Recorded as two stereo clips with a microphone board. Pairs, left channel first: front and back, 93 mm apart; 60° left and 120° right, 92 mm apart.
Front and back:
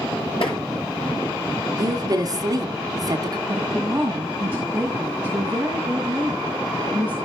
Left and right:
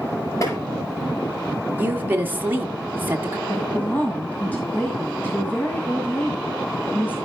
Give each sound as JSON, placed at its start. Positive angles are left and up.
{"t": 0.4, "sound": "tapping", "azimuth_deg": 10, "distance_m": 5.5}
{"t": 1.8, "sound": "a woman speaking", "azimuth_deg": -175, "distance_m": 1.2}
{"t": 3.5, "sound": "a woman speaking", "azimuth_deg": 120, "distance_m": 1.9}